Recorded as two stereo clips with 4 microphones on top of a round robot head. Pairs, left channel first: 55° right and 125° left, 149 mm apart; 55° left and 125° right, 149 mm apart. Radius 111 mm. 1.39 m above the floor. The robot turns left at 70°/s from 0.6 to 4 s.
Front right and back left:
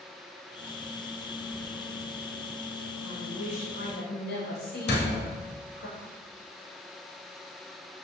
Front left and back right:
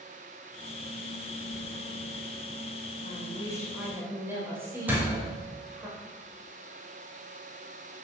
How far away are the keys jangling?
About 0.6 m.